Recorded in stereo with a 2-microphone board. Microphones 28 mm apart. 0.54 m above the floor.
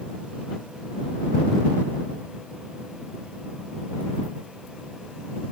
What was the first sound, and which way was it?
Only background noise.